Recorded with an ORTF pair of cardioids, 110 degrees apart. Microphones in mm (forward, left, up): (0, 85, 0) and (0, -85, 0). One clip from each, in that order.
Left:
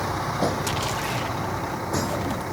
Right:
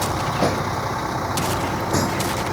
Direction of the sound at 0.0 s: 20° right.